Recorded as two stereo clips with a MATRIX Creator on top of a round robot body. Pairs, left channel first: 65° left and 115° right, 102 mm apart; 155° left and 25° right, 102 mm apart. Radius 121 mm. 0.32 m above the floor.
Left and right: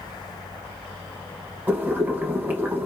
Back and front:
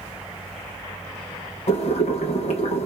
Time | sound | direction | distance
1.7 | boiling | 175° left | 0.7 m